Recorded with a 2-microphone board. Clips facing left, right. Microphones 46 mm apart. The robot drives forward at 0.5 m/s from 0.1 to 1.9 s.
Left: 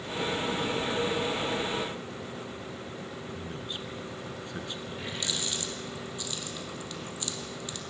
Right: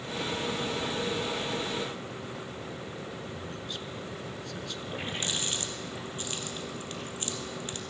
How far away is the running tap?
About 2 m.